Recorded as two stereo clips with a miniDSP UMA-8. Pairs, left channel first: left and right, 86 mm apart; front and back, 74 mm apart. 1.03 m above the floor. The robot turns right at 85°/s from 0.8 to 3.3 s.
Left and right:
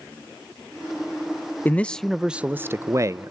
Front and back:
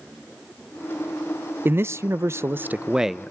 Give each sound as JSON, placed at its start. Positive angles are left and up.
{"t": 1.6, "sound": "a man speaking", "azimuth_deg": 140, "distance_m": 0.5}